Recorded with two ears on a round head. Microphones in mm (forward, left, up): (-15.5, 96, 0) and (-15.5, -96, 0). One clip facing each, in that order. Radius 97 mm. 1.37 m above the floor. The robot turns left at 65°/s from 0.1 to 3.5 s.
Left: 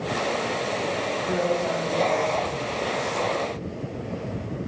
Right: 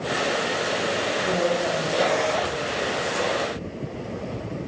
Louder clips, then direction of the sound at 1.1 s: Right 1 dB; 150° right.